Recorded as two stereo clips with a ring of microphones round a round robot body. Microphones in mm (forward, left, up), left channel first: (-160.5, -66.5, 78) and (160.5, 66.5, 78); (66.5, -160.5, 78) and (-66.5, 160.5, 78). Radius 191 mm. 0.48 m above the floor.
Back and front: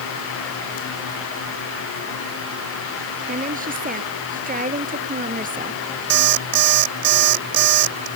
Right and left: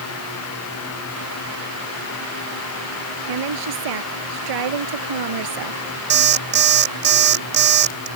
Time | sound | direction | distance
3.3 | a woman speaking | 90° left | ?
6.1 | an alarm clock | 50° left | ?